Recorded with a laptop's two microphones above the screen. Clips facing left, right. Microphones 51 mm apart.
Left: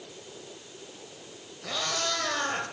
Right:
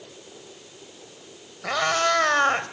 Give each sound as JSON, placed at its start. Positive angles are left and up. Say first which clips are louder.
{"t": 1.6, "sound": "a cat meowing", "louder": "right 9 dB", "side_deg": -60, "distance_m": 2.0}